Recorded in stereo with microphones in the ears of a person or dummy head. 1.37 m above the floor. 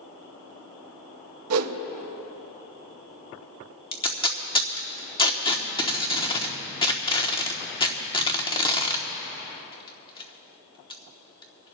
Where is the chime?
I don't hear a chime.